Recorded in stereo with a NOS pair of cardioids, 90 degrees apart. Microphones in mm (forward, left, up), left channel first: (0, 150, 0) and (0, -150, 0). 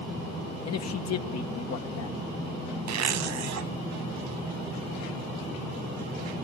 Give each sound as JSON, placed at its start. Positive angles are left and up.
{"t": 0.7, "sound": "a man speaking", "azimuth_deg": 60, "distance_m": 1.8}
{"t": 2.9, "sound": "a zipper", "azimuth_deg": -65, "distance_m": 2.0}